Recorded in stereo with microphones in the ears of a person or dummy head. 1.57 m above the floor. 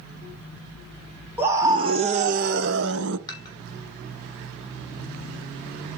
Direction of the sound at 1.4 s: 15° right (ahead or behind).